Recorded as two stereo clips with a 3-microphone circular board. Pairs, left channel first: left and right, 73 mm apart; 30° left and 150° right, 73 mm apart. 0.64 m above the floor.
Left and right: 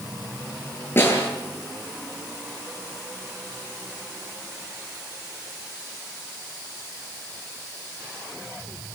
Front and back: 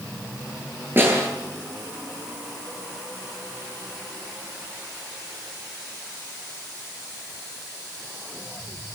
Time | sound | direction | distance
1.0 | a snare drum | 150° left | 10 m